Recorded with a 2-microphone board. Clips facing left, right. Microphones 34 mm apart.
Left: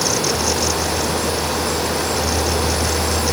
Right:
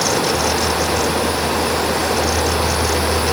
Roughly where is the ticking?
No ticking in this recording.